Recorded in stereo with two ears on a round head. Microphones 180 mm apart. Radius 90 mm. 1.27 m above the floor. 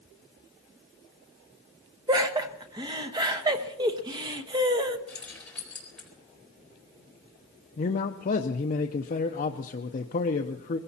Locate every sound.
2.1 s laughter: 20° right (ahead or behind), 1.0 m
5.1 s keys jangling: 5° left (ahead or behind), 4 m
7.8 s a man speaking: 40° left (ahead or behind), 0.7 m